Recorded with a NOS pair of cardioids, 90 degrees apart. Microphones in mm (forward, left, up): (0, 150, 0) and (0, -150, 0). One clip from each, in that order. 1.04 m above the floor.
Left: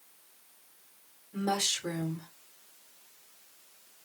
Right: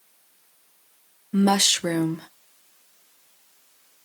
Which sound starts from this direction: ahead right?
A woman speaking, at 1.3 s.